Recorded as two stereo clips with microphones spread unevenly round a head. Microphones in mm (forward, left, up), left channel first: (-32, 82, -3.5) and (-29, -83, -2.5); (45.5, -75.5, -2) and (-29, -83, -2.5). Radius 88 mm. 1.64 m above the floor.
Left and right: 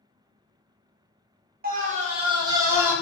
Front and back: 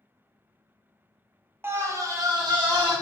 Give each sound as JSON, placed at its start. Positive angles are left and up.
{"t": 1.6, "sound": "a scream", "azimuth_deg": -115, "distance_m": 0.9}